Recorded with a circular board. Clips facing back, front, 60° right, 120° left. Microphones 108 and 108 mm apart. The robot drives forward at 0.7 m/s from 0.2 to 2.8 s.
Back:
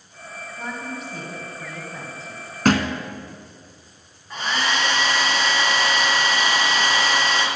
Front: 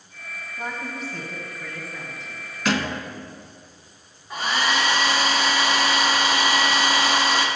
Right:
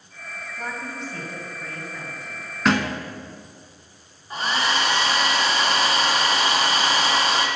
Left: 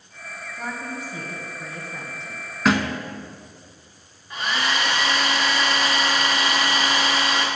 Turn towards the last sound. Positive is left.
turn(degrees=-75)